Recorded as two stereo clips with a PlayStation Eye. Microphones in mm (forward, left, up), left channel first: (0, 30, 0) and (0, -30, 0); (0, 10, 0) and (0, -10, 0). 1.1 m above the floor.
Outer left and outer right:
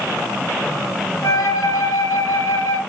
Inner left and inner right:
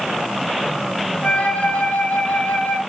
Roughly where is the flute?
Left.